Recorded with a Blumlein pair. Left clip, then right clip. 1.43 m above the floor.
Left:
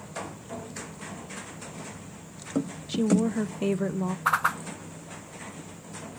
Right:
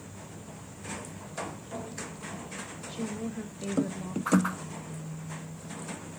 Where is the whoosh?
65° left, 0.5 m.